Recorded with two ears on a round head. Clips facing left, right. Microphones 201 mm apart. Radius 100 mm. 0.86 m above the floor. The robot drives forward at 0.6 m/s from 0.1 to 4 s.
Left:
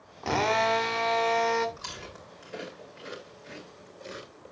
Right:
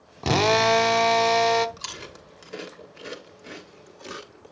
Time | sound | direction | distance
0.2 | a drill | 50° right (ahead or behind) | 0.8 m
1.8 | chewing | 50° right (ahead or behind) | 2.5 m